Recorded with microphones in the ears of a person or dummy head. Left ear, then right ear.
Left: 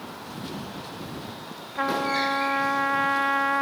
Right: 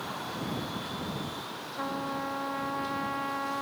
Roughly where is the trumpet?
Left.